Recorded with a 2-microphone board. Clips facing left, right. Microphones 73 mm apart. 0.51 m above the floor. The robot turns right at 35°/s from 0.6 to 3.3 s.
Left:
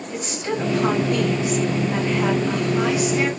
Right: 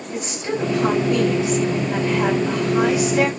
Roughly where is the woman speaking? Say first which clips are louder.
Right 1 dB; behind.